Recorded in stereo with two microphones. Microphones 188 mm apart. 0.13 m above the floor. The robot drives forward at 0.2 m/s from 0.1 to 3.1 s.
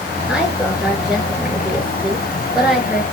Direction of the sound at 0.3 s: 5° right (ahead or behind).